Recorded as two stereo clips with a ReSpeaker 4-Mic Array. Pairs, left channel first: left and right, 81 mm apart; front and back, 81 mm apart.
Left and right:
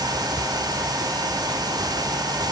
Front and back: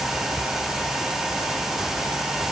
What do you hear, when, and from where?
Only background noise.